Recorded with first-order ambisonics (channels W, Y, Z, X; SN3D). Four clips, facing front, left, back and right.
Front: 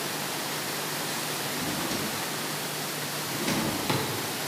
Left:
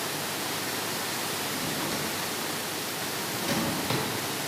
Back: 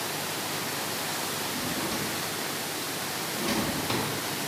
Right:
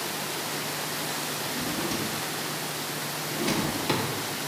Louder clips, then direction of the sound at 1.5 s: Right 1 dB, even; 40° right.